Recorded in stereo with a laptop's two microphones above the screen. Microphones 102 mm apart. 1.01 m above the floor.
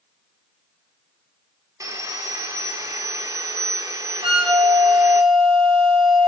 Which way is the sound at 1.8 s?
35° right (ahead or behind).